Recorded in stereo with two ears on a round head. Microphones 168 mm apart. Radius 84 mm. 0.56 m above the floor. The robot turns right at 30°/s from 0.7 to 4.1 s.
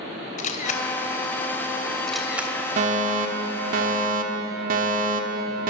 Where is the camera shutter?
40° left (ahead or behind), 3 m; by 2.5 s 10° right (ahead or behind), 3 m.